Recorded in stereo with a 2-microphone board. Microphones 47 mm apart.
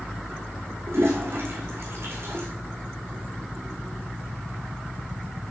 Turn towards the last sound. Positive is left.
turn(degrees=-55)  # may be behind; listen again after turning